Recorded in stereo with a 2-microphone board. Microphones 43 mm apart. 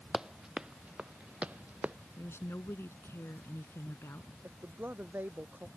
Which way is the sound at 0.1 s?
15° right (ahead or behind).